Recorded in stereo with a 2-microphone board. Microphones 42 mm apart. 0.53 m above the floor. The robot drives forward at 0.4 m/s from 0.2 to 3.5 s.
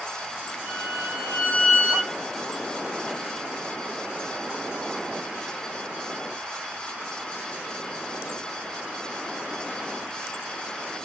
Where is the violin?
30° right (ahead or behind), 3.5 m; by 2.1 s 25° right (ahead or behind), 4 m.